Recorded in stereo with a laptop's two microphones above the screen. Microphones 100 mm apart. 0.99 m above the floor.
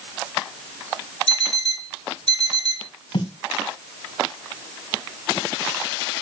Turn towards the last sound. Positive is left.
turn(degrees=70)  # may be behind; listen again after turning